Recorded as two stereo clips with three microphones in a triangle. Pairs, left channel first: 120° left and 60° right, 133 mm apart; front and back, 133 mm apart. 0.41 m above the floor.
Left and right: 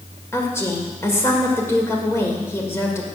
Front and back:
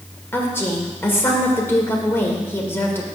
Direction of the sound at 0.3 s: 65° left.